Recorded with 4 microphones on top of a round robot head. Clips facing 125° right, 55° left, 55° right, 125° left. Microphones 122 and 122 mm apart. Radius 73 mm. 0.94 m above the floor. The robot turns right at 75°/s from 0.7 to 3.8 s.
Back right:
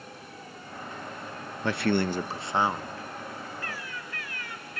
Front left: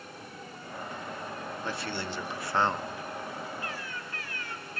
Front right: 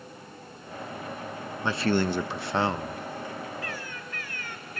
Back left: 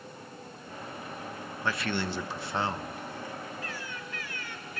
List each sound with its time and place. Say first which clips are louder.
1.6 s a man speaking: back right 12 dB, front right 7 dB; 125° right, 0.8 m; by 3.0 s 20° right, 0.8 m
3.6 s a bird: even, front right 2 dB; 20° right, 2.5 m; by 4.8 s 5° right, 2.5 m